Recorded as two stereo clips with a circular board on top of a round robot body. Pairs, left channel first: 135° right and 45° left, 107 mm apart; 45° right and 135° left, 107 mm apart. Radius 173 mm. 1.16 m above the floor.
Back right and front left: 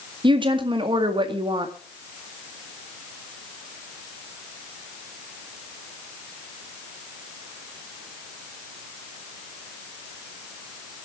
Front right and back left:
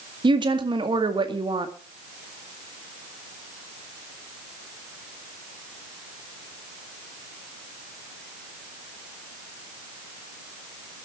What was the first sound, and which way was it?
A woman speaking, 90° left.